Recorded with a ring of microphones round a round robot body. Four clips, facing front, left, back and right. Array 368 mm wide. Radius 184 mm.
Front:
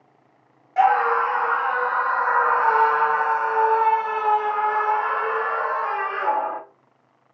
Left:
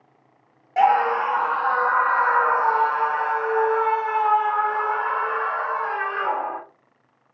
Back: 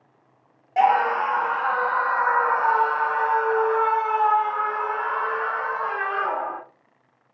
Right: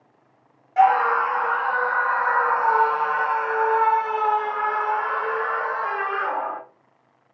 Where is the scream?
135° left, 1.3 m; by 6.6 s 30° right, 2.5 m.